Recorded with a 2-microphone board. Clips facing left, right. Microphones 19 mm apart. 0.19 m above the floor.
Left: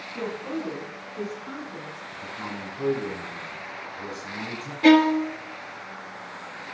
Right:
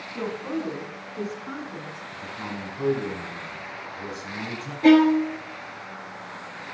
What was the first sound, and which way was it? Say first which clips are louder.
A woman speaking: right 2 dB; 35° right (ahead or behind).